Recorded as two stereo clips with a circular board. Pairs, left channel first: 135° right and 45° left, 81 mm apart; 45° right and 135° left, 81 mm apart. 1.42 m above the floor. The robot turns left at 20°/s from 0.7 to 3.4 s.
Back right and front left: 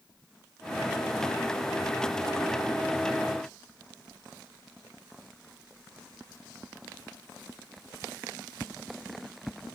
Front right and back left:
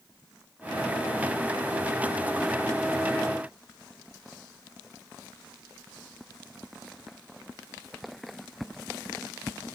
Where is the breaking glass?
I don't hear breaking glass.